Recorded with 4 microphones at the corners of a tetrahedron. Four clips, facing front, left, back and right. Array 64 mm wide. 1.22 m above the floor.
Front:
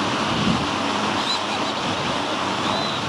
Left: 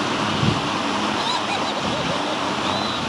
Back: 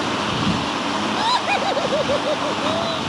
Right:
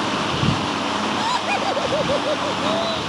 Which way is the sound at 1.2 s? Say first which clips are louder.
Right 1 dB, back 4 dB; 165° right.